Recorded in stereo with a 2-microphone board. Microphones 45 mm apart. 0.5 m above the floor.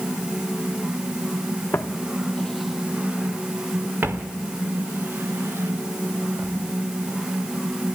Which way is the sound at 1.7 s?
65° left (ahead or behind).